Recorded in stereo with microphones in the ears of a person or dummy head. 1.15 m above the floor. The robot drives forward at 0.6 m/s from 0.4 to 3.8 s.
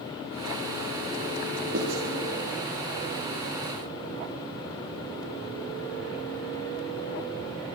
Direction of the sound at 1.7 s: 60° right (ahead or behind).